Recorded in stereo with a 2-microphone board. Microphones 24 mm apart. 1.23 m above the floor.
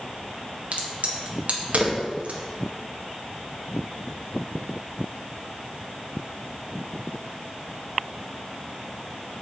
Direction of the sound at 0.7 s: 60° right (ahead or behind).